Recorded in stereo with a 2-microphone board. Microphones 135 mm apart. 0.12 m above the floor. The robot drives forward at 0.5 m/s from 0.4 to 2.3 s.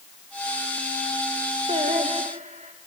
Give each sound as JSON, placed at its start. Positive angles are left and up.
{"t": 1.7, "sound": "singing", "side_deg": -55, "distance_m": 2.5}